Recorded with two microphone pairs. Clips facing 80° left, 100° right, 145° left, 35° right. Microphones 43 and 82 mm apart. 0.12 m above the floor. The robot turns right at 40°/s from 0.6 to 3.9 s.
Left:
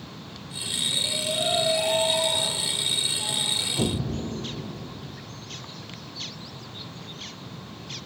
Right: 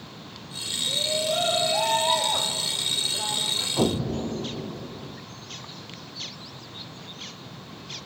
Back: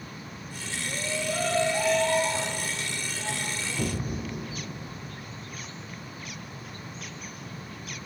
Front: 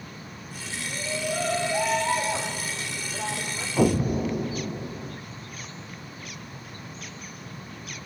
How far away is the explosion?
About 1.2 m.